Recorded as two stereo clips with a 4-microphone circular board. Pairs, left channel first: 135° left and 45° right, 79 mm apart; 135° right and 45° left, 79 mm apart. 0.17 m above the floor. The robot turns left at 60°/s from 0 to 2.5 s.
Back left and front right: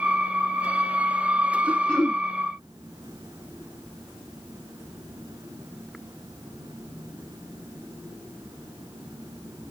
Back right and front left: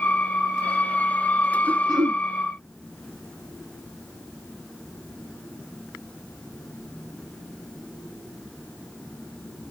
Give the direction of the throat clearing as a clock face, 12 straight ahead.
10 o'clock.